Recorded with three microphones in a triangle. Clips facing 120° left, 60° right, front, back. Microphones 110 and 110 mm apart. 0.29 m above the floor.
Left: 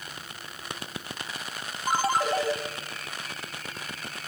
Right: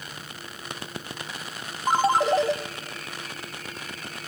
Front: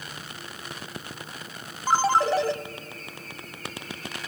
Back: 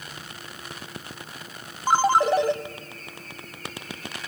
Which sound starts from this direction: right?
A ringtone, at 1.9 s.